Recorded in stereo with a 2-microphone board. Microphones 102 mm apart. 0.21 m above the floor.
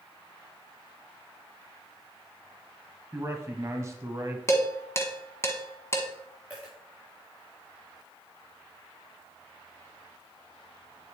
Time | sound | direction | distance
3.1 | a man speaking | 30° right (ahead or behind) | 1.2 m
4.5 | dishes clattering | 30° left (ahead or behind) | 1.2 m
6.5 | a dropped coin | 15° right (ahead or behind) | 4.5 m